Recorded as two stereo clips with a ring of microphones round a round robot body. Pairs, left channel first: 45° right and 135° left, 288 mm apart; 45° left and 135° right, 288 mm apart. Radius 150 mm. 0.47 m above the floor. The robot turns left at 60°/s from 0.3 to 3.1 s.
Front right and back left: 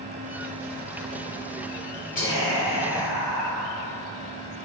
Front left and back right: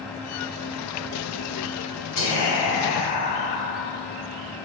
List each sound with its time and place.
2.1 s whispering: 15° left, 1.9 m; by 3.7 s 40° right, 1.9 m